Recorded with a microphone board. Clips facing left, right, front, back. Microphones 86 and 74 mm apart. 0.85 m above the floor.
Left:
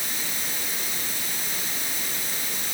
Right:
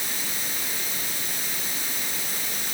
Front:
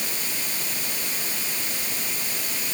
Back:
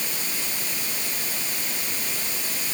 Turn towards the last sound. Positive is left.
No sound to turn to.